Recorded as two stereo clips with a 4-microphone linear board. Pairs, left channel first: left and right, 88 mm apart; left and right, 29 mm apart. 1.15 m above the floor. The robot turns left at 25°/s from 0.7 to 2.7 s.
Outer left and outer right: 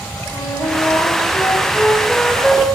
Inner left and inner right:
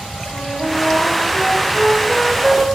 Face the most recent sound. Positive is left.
turn(degrees=0)